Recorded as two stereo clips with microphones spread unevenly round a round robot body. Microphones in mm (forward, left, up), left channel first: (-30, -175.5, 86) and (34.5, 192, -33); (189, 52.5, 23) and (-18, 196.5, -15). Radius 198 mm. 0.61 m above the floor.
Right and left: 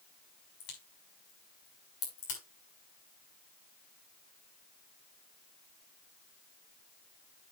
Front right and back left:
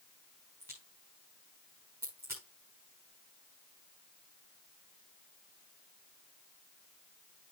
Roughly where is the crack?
Behind right.